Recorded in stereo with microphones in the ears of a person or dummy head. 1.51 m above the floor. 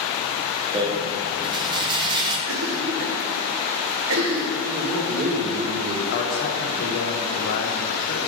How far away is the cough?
About 1.1 m.